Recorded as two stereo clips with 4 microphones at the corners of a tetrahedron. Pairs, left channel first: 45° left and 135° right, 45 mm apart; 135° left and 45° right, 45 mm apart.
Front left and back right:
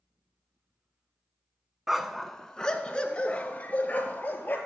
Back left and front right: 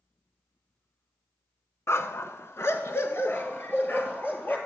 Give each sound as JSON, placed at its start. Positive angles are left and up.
{"t": 1.9, "sound": "a dog barking", "azimuth_deg": 140, "distance_m": 0.9}